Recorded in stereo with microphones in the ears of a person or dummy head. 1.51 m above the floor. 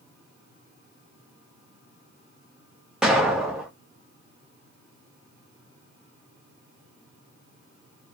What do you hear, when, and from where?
3.0 s an explosion: 5° right (ahead or behind), 0.5 m